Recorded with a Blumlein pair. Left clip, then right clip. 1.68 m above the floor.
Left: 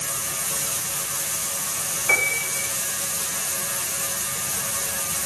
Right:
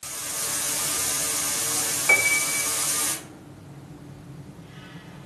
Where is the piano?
5° right, 2 m.